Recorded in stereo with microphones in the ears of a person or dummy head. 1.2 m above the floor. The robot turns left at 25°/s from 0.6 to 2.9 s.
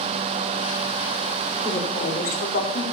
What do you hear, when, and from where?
1.6 s a woman speaking: 25° left (ahead or behind), 3.5 m; by 2.8 s 55° left (ahead or behind), 3.5 m